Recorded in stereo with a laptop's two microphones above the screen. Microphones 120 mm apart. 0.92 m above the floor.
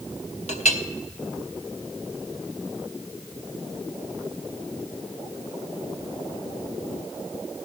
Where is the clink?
70° left (ahead or behind), 1.2 m.